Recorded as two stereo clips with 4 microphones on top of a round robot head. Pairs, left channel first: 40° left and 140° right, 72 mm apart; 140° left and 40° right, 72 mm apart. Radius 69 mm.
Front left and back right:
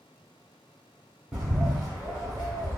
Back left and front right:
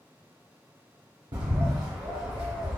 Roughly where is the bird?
Ahead right.